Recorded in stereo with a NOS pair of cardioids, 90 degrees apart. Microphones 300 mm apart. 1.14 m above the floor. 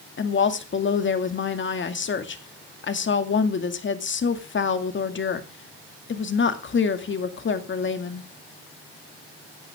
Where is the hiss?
I don't hear a hiss.